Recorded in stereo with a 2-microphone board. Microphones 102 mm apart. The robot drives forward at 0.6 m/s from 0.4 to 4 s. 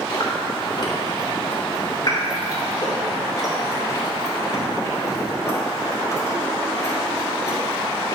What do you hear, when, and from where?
0.1 s chewing: 50° left (ahead or behind), 2.5 m; by 8.2 s 35° left (ahead or behind), 3.5 m